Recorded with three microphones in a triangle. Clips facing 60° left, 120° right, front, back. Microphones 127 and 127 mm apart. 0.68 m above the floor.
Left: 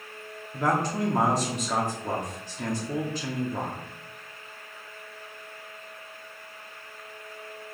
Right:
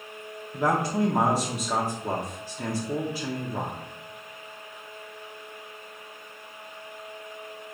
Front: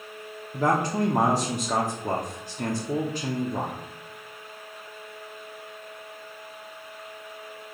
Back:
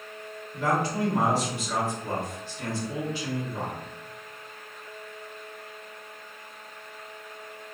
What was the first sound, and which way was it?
A man speaking, 40° right.